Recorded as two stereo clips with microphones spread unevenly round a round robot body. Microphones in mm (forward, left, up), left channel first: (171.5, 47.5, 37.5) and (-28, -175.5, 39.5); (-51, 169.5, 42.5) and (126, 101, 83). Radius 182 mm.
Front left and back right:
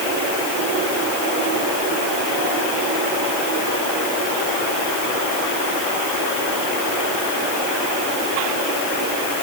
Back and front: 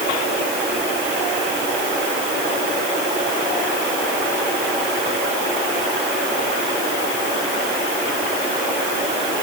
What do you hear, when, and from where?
Only background noise.